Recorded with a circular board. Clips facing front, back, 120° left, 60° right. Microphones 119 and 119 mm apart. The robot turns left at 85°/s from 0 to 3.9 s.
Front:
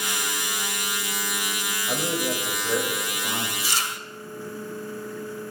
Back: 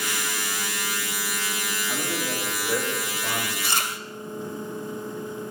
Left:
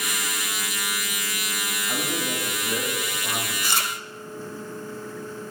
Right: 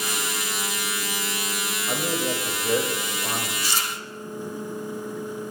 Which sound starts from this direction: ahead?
A man speaking, at 1.9 s.